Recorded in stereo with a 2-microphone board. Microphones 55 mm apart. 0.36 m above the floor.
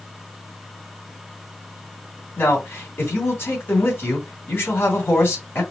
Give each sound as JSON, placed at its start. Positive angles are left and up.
{"t": 2.4, "sound": "a man speaking", "side_deg": 45, "distance_m": 2.5}